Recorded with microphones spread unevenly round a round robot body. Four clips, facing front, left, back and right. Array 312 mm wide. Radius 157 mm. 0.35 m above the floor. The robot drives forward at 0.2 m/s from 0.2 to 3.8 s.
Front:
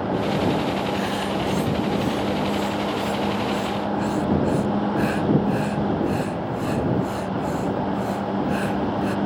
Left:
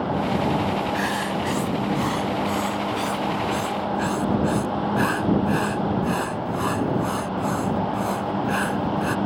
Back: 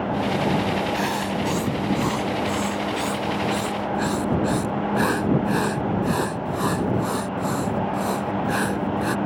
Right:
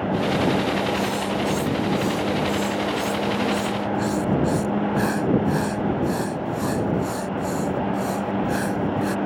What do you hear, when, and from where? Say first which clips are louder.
0.9 s writing: right 1 dB, even; 165° left; by 9.2 s 170° left